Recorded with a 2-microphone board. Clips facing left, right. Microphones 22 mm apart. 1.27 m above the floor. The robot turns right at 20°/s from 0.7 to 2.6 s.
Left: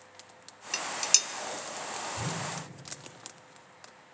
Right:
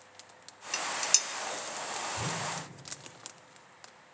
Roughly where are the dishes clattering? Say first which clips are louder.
Left 2 dB; centre.